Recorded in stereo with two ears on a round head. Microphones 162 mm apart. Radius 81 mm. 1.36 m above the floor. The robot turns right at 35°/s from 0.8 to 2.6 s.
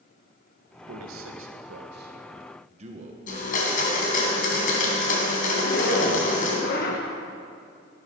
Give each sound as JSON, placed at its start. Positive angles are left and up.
{"t": 0.9, "sound": "a man speaking", "azimuth_deg": -95, "distance_m": 1.4}
{"t": 3.3, "sound": "a blender", "side_deg": 45, "distance_m": 3.0}
{"t": 5.6, "sound": "a zipper", "side_deg": 50, "distance_m": 1.5}